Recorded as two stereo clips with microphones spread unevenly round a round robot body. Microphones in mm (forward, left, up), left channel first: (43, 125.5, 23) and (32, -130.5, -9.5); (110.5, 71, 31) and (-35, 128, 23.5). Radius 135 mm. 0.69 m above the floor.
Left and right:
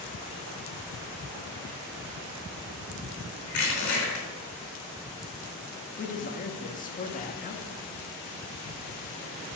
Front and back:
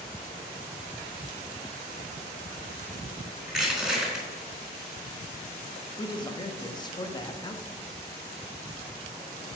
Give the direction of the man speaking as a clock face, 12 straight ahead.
11 o'clock.